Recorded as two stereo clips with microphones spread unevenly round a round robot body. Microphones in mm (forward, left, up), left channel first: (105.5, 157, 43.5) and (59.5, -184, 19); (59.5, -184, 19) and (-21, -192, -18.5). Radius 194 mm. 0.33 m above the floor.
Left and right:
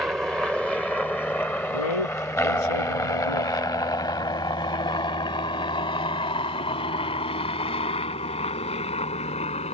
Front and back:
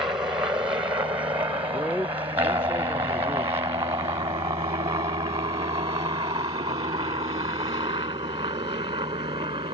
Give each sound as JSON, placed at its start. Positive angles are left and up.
{"t": 0.0, "sound": "a helicopter", "azimuth_deg": 175}
{"t": 1.7, "sound": "a man speaking", "azimuth_deg": 95}